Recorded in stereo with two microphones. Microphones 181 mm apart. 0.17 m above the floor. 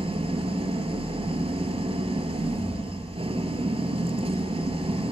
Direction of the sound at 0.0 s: 35° right (ahead or behind).